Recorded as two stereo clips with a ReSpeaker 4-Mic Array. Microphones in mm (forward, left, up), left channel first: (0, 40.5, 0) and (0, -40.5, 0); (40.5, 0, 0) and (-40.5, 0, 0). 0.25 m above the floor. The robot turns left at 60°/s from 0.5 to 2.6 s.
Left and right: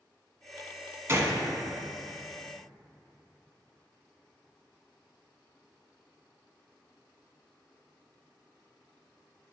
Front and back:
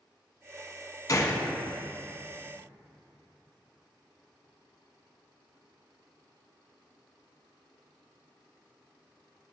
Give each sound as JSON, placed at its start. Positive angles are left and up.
{"t": 1.1, "sound": "a gunshot", "azimuth_deg": -35, "distance_m": 1.0}